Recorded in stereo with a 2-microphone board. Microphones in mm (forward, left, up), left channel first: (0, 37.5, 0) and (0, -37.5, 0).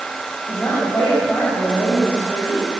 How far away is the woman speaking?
About 9 m.